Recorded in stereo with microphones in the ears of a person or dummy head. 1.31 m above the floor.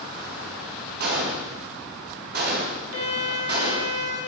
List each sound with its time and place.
1.0 s a gunshot: 55° right (ahead or behind), 1.1 m
2.9 s a violin: 65° left (ahead or behind), 3 m